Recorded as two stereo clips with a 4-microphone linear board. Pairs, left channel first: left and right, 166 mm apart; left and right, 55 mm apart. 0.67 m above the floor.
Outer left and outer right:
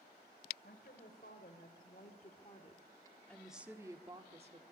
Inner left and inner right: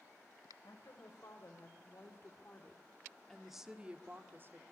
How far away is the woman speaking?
About 3.5 m.